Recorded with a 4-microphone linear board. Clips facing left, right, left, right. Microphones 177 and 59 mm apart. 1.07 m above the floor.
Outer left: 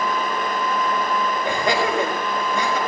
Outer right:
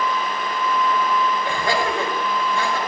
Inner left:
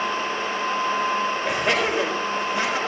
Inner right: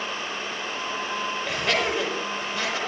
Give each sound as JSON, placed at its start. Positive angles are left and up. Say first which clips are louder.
{"t": 1.4, "sound": "laughter", "louder": "outer left 1 dB, inner left 1 dB", "side_deg": 20, "distance_m": 5.0}